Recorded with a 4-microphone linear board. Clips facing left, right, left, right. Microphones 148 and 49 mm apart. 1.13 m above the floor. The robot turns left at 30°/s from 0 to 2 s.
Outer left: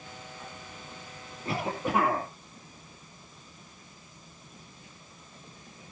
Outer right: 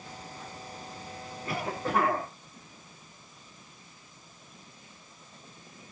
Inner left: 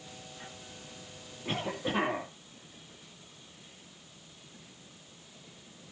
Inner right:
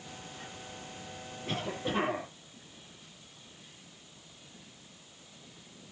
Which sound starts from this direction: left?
A cough, at 1.4 s.